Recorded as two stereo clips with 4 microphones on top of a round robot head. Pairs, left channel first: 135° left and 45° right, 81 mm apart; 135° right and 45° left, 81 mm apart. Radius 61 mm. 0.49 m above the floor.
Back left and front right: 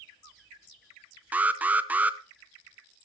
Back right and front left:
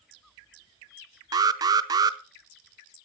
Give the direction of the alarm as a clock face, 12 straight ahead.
11 o'clock.